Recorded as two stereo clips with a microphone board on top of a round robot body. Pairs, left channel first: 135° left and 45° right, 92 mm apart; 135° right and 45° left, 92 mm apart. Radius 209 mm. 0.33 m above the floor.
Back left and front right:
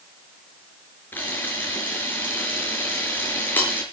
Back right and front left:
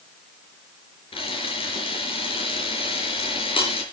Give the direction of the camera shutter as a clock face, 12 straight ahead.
5 o'clock.